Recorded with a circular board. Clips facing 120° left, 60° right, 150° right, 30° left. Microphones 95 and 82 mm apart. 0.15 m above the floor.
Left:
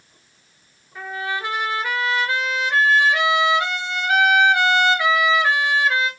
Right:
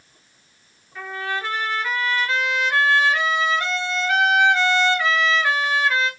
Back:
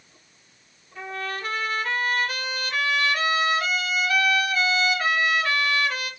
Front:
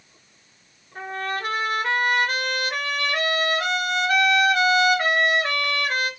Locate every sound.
0.9 s a trumpet: 45° left, 0.8 m